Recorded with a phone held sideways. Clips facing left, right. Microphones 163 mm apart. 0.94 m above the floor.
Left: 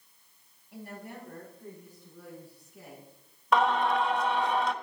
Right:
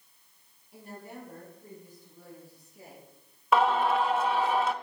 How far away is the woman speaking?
About 6.5 m.